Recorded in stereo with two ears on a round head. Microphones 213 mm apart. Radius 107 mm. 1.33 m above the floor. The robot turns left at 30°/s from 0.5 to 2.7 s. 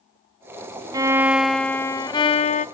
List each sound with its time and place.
0.9 s a violin: 165° right, 0.7 m; by 2.6 s 145° left, 0.7 m